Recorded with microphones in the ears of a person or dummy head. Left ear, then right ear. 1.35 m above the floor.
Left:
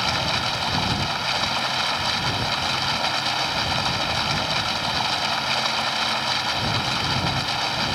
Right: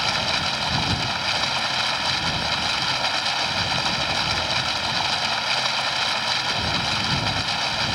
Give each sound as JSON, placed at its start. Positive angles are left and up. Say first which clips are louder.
{"t": 0.0, "sound": "running water", "louder": "even", "side_deg": -5}